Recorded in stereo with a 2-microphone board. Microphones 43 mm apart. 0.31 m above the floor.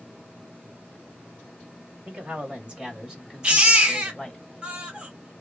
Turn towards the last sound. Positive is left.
turn(degrees=-25)  # may be behind; listen again after turning